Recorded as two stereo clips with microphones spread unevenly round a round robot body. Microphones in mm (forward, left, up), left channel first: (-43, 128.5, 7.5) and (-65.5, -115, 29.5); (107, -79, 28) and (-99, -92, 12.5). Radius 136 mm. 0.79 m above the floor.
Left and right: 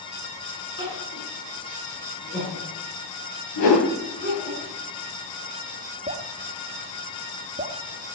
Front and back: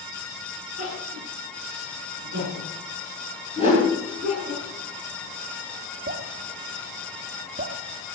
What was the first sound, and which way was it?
Crying, 125° left.